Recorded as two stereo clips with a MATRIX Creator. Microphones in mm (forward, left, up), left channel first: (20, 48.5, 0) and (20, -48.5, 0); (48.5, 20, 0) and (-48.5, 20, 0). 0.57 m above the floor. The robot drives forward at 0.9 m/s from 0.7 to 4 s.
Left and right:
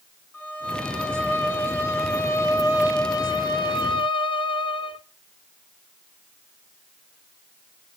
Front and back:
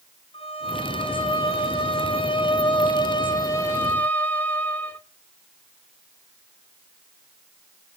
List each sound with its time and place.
0.3 s a violin: 15° left, 3.5 m; by 5.0 s 70° left, 1.2 m